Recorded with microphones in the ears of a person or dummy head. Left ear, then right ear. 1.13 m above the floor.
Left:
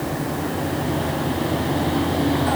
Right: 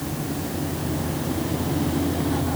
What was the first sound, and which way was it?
Only background noise.